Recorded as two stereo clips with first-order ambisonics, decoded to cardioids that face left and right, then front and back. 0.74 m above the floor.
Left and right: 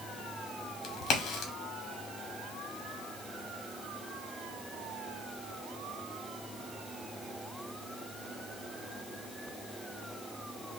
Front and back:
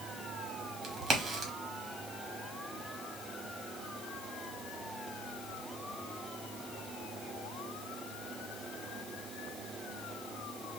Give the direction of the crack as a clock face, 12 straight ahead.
8 o'clock.